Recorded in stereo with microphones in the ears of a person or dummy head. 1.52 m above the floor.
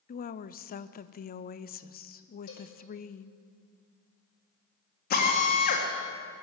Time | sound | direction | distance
0.1 | a woman speaking | 45° left (ahead or behind) | 0.5 m
2.5 | a cowbell | 75° left (ahead or behind) | 5.5 m
5.1 | a drill | 50° left (ahead or behind) | 2.5 m